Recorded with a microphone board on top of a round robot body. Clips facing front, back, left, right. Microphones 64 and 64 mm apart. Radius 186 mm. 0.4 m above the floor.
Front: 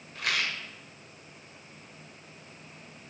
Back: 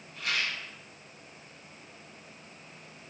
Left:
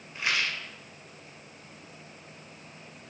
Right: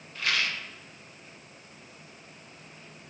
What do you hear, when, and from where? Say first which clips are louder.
0.1 s a rattle: front 2 dB, even; 20° left, 2 m